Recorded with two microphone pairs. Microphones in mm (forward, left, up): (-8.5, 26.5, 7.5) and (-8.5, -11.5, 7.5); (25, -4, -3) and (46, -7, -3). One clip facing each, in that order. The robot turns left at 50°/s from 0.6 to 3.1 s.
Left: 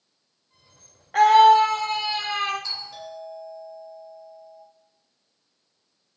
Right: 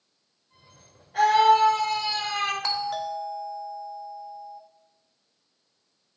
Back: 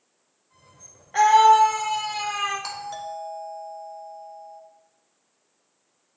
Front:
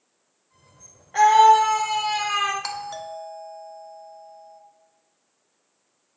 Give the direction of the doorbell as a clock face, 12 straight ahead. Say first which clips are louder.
Right 7 dB, front 1 dB; 2 o'clock.